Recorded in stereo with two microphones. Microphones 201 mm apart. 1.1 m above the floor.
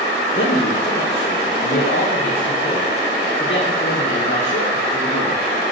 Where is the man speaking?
65° left (ahead or behind), 1.1 m.